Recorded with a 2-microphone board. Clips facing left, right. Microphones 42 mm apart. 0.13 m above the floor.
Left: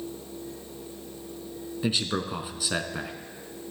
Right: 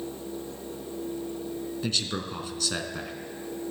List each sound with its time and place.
1.8 s a man speaking: 15° left (ahead or behind), 1.1 m